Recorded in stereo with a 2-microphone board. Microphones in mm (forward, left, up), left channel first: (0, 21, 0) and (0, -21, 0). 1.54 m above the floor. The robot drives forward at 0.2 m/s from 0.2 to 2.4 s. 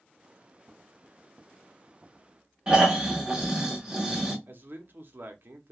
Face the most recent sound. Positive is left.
turn(degrees=-50)  # may be behind; listen again after turning